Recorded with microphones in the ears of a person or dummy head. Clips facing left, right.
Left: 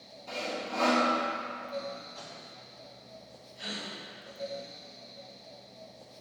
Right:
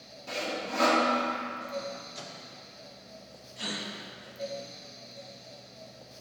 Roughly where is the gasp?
Right.